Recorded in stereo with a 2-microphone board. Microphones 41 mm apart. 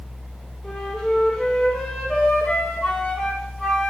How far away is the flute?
About 5 m.